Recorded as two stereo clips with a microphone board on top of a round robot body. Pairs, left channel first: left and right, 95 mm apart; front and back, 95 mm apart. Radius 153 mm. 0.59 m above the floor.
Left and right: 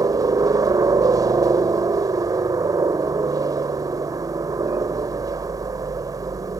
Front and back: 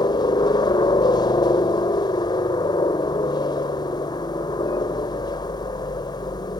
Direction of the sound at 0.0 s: 40° right.